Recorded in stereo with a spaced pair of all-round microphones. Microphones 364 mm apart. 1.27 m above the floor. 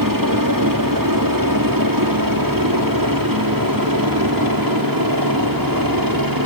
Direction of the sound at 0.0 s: 65° right (ahead or behind).